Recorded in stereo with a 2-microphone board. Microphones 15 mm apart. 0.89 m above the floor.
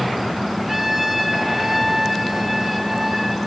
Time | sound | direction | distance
0.7 | a trumpet | 15° right (ahead or behind) | 2.5 m